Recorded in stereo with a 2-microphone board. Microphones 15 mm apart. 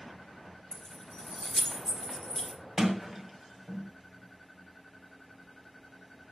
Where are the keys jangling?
30° left (ahead or behind), 3.5 m.